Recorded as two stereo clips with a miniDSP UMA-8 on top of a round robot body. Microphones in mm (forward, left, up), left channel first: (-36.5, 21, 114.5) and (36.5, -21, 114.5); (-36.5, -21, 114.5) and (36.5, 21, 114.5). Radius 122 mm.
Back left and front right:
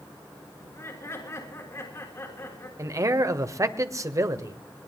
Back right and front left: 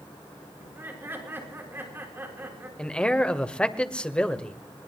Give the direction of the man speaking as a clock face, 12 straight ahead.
2 o'clock.